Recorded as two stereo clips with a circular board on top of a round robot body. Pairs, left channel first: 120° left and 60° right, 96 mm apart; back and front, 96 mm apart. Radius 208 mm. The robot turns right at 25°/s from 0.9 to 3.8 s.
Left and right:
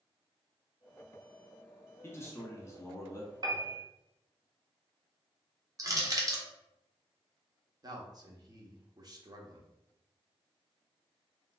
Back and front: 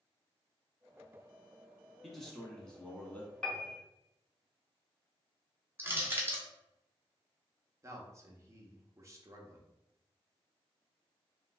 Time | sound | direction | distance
2.0 | a man speaking | 95° left | 1.3 m
3.4 | a piano | 100° right | 0.9 m
5.8 | crushing | 50° right | 1.2 m
7.8 | a man speaking | 40° right | 1.0 m